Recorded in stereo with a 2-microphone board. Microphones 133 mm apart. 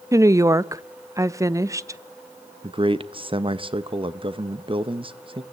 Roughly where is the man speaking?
Right.